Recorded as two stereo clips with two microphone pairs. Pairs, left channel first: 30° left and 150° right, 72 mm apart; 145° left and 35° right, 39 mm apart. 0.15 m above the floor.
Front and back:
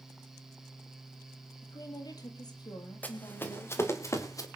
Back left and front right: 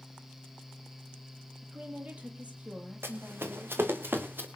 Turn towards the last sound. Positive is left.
turn(degrees=-5)